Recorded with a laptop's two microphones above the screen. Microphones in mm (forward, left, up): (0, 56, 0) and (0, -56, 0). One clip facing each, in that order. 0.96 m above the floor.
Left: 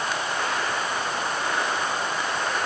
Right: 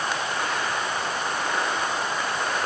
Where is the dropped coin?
No dropped coin in this recording.